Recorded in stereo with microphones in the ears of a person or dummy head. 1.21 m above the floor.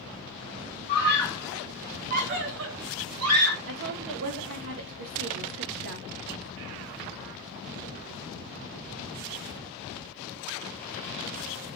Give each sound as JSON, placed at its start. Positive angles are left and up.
{"t": 0.9, "sound": "a scream", "side_deg": 25, "distance_m": 0.7}
{"t": 3.7, "sound": "a woman speaking", "side_deg": -75, "distance_m": 0.5}